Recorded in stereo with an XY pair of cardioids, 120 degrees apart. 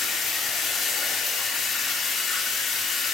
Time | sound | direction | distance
0.0 | running water | 55° left | 3.5 m